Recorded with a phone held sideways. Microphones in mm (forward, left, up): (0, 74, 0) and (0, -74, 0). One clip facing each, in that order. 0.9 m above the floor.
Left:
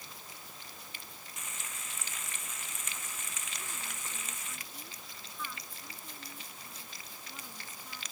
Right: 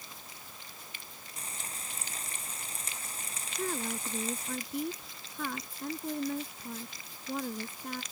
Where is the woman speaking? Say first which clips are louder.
Right 17 dB; 60° right (ahead or behind).